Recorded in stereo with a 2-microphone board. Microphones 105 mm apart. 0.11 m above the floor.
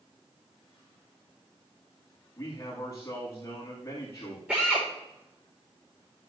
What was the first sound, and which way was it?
A man speaking, 25° left (ahead or behind).